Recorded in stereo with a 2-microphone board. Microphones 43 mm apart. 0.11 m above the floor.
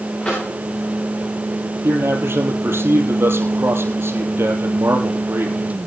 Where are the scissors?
I don't hear scissors.